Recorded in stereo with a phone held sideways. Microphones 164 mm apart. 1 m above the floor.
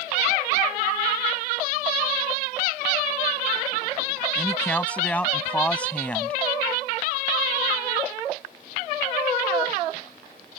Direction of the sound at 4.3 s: 10° left (ahead or behind).